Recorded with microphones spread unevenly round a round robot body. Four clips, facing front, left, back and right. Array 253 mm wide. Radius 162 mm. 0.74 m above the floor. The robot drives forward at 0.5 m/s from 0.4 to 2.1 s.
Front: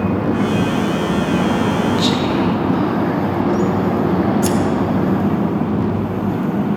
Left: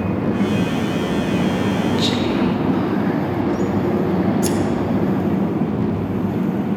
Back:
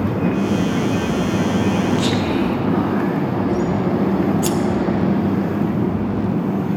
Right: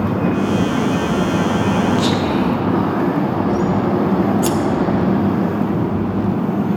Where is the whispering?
160° left, 0.5 m; by 3.7 s 165° left, 0.6 m.